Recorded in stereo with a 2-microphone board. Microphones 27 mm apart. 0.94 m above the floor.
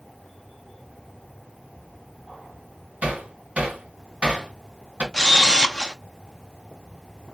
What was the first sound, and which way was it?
Hammering, 55° right (ahead or behind).